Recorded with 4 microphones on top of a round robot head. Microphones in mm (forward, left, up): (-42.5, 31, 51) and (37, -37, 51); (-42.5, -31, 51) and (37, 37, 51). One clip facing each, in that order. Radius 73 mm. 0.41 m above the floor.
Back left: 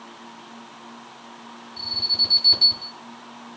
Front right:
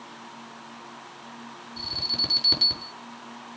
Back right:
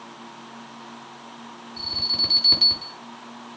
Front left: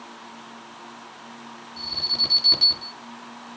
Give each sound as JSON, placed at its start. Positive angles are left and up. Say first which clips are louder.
{"t": 1.8, "sound": "an alarm", "louder": "front right 3 dB, back right 1 dB", "azimuth_deg": -60, "distance_m": 6.0}